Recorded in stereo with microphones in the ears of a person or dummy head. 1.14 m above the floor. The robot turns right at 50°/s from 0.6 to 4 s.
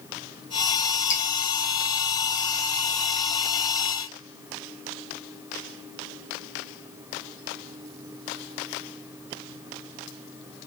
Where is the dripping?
35° left (ahead or behind), 1.0 m; by 1.2 s 30° left (ahead or behind), 1.0 m.